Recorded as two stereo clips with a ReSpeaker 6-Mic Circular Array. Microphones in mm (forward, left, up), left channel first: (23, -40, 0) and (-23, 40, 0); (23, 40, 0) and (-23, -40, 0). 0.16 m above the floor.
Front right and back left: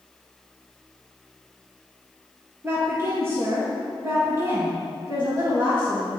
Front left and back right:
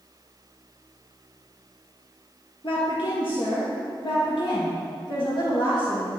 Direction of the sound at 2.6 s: 60° left.